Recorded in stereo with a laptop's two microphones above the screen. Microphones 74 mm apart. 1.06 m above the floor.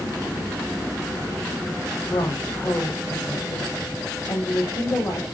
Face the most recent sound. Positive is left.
turn(degrees=60)  # may be behind; listen again after turning